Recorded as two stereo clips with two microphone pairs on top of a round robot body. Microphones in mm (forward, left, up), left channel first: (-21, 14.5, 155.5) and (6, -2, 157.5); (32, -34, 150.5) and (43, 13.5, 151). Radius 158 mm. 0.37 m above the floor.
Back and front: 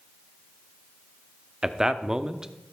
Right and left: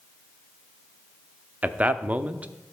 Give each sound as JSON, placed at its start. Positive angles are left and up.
{"t": 1.6, "sound": "a man speaking", "azimuth_deg": 40, "distance_m": 1.0}